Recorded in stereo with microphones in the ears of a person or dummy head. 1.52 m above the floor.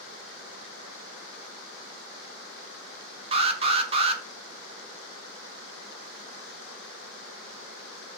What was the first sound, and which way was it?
An alarm, 30° right (ahead or behind).